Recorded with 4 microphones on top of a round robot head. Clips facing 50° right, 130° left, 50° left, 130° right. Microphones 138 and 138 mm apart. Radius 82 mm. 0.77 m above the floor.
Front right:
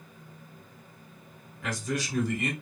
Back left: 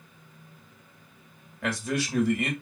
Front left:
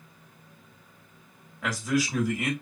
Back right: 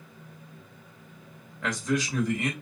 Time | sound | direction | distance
1.6 | a man speaking | 135° left | 1.6 m